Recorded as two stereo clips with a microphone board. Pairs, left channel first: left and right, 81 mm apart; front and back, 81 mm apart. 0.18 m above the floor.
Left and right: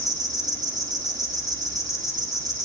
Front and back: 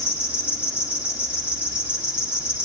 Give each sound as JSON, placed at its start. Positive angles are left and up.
{"t": 0.0, "sound": "an insect", "azimuth_deg": -105, "distance_m": 3.5}